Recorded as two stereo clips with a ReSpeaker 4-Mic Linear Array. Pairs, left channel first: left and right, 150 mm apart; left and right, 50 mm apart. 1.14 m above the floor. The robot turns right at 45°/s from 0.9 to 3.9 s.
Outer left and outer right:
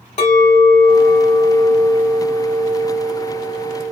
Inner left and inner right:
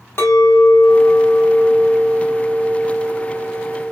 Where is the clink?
125° left, 1.4 m; by 3.9 s 100° right, 1.4 m.